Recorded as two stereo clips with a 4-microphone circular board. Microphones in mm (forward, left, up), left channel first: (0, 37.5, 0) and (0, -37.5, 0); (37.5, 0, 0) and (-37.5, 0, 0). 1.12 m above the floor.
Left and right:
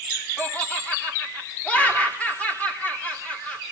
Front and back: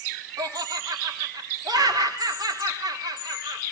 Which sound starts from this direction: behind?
Laughter, at 0.4 s.